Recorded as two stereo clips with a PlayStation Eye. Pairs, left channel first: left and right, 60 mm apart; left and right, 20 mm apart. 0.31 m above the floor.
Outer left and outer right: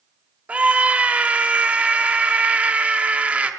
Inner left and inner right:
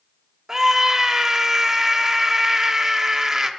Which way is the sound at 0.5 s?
25° right (ahead or behind).